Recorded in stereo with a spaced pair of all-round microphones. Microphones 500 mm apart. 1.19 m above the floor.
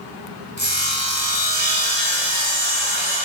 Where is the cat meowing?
I don't hear a cat meowing.